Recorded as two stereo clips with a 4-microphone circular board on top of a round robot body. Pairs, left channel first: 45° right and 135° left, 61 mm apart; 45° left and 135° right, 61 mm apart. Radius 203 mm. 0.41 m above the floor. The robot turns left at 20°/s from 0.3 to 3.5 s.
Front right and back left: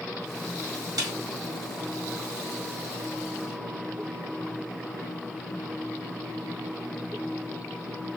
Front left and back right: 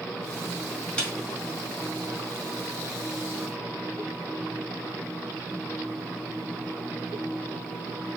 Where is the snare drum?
120° left, 1.4 m; by 1.1 s 115° left, 1.4 m.